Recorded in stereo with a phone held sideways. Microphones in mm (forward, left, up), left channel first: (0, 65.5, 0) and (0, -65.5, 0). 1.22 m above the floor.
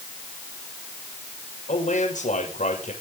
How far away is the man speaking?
About 6.5 m.